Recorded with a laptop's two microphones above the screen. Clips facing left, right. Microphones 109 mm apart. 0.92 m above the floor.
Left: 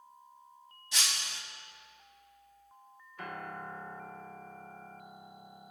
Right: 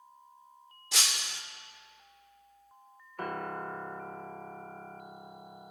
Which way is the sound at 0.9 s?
80° right.